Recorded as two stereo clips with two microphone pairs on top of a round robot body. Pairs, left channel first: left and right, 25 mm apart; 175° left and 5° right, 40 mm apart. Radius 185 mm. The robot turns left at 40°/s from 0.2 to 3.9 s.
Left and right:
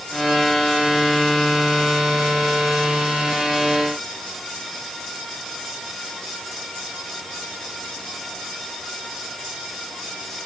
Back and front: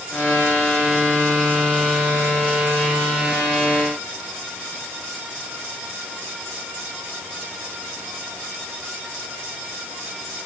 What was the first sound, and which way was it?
Only background noise.